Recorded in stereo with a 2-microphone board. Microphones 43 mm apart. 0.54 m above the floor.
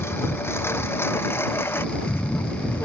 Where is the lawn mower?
75° left (ahead or behind); by 2.9 s 60° left (ahead or behind).